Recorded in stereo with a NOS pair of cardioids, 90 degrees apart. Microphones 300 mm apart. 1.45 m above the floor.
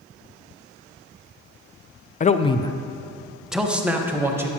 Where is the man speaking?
25° left, 0.6 m; by 4.5 s 10° right, 1.7 m.